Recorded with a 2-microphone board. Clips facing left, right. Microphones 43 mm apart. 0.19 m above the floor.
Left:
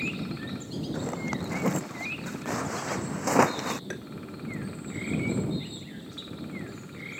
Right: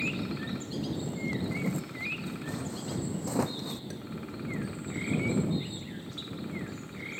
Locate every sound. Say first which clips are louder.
0.9 s a zipper: left 2 dB; 80° left
3.9 s tapping: left 4 dB; 65° left (ahead or behind)